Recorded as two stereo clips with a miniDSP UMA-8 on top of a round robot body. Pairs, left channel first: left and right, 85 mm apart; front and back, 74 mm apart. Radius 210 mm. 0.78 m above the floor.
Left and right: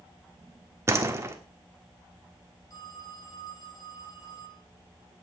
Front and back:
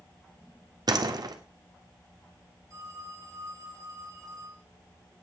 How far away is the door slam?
About 1.4 m.